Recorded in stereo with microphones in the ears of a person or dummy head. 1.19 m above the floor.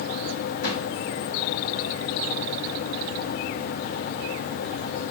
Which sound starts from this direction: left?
A drawer, at 0.6 s.